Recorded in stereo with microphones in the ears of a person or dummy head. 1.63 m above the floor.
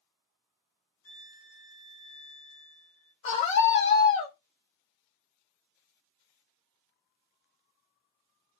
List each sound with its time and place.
1.0 s a violin: 55° left (ahead or behind), 0.8 m
3.2 s a scream: 40° left (ahead or behind), 0.5 m